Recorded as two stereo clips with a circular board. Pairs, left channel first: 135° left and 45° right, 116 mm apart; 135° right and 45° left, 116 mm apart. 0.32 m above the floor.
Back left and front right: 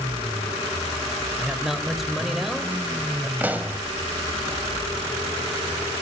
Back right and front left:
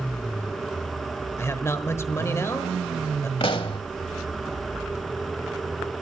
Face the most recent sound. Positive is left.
turn(degrees=-115)